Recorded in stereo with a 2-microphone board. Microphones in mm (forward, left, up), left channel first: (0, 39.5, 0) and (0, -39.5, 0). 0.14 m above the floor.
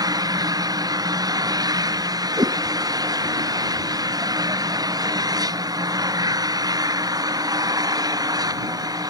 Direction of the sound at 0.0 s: 55° right (ahead or behind).